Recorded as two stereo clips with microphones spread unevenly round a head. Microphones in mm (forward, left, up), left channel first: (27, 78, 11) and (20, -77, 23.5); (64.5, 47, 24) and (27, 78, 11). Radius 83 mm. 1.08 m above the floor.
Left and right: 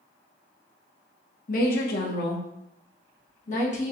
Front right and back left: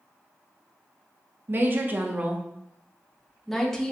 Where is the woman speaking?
115° left, 0.9 m; by 3.9 s 45° left, 1.3 m.